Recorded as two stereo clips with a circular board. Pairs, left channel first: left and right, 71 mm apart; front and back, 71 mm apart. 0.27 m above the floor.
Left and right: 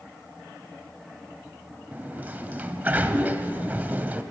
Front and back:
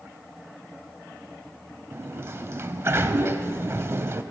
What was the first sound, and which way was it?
A sliding door, 145° right.